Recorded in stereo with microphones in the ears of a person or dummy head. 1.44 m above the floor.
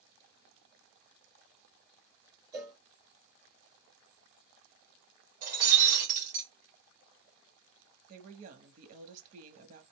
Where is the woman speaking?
40° right (ahead or behind), 0.8 m.